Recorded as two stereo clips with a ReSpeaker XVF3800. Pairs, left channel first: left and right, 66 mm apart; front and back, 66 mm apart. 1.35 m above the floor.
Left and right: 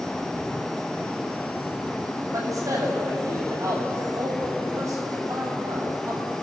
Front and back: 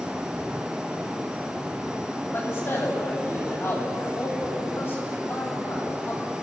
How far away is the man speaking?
About 9.5 m.